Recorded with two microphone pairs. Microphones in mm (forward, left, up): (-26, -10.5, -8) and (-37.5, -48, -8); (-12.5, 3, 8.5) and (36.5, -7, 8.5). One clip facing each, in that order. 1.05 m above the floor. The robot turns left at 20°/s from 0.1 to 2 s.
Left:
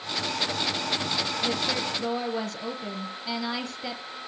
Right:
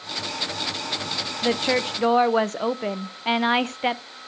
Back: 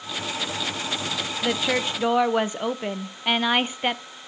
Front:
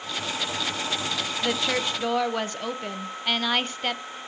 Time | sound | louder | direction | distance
1.4 | a woman speaking | right 10 dB, back 2 dB | 110° right | 0.7 m